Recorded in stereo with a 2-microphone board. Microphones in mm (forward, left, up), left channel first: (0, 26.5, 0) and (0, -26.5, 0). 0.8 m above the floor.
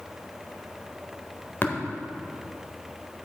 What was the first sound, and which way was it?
Tapping, 40° left (ahead or behind).